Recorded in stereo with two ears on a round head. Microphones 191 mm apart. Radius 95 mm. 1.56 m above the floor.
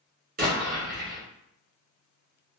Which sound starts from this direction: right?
An explosion, at 0.4 s.